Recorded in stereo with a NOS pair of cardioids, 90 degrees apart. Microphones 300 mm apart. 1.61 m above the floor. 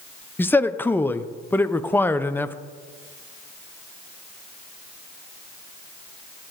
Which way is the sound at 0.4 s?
5° left.